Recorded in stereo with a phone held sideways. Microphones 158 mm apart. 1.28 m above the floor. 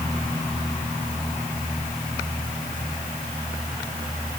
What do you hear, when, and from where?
Only background noise.